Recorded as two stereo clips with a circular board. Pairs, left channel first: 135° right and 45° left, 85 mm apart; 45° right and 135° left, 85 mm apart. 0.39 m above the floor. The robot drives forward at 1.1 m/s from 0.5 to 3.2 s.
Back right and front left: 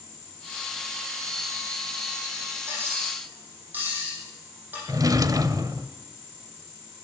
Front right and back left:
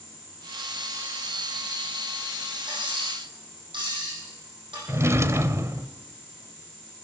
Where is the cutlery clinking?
110° left, 9 m; by 4.8 s 115° left, 9 m.